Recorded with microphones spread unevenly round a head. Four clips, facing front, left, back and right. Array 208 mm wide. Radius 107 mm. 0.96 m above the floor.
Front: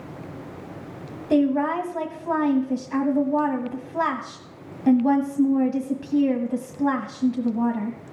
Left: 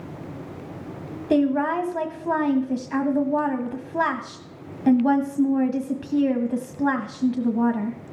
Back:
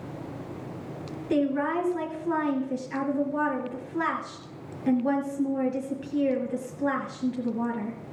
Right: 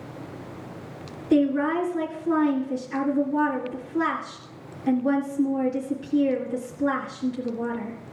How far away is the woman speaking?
About 1.4 m.